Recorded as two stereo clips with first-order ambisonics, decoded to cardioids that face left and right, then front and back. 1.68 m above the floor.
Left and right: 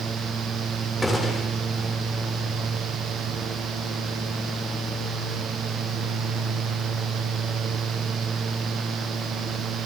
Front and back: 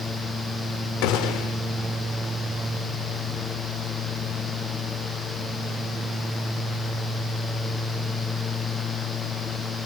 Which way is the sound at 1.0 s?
5° left.